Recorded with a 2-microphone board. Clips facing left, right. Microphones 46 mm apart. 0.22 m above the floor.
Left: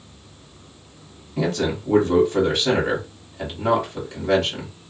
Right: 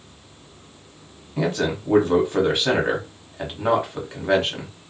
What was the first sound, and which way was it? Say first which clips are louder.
A man speaking: even; 20° right (ahead or behind).